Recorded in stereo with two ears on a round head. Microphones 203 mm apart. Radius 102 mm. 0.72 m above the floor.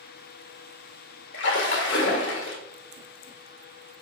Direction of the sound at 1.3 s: 55° left (ahead or behind).